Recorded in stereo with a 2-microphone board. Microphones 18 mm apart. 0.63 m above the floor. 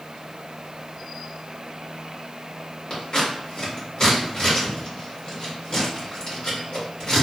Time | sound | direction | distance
2.9 | scissors | 45° left (ahead or behind) | 1.4 m